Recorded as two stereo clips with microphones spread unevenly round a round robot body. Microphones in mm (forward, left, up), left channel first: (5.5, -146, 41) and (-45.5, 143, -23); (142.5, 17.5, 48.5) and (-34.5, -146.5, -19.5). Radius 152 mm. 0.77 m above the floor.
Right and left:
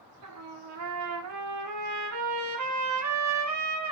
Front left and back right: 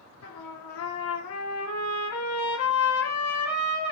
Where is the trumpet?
90° left, 1.9 m.